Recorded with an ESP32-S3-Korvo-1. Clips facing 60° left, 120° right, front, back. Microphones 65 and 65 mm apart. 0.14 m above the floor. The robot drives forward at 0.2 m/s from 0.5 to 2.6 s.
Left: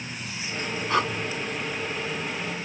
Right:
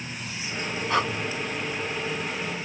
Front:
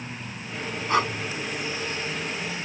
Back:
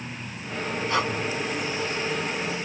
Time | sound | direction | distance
0.9 | breathing | 30° right | 1.8 m